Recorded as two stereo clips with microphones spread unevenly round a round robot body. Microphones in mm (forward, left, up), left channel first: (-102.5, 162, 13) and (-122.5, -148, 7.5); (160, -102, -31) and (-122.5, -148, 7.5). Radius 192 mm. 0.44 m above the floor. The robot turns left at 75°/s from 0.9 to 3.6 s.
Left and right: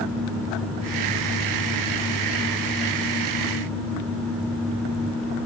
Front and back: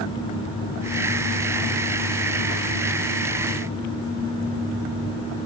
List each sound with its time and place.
Only background noise.